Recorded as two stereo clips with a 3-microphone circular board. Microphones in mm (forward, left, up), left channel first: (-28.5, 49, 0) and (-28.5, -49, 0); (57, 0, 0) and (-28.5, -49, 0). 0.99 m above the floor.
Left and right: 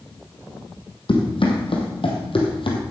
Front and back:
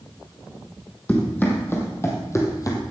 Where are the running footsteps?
100° left, 2.5 m; by 2.8 s 80° left, 2 m.